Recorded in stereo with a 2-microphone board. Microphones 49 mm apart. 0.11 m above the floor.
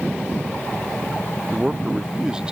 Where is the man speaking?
15° right (ahead or behind).